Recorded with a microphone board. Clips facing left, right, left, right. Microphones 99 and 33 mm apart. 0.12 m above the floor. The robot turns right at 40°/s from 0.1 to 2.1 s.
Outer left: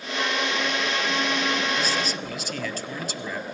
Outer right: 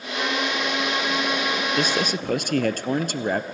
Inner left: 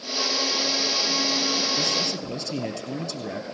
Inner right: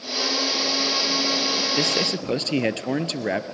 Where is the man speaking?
55° right (ahead or behind), 1.9 m.